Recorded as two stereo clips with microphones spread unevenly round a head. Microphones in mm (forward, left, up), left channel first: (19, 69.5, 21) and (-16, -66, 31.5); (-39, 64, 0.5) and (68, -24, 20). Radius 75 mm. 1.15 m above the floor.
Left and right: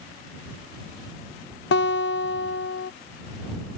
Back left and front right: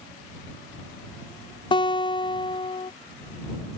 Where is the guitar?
80° left.